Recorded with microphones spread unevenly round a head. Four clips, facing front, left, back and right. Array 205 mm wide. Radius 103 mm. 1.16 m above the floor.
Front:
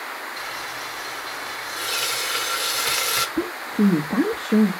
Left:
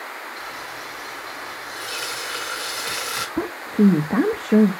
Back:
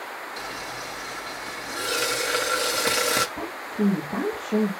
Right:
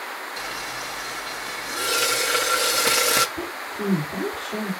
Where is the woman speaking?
65° left, 1.7 m.